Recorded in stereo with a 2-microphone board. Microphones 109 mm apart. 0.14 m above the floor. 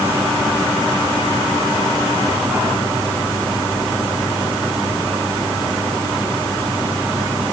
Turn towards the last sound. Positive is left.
No sound to turn to.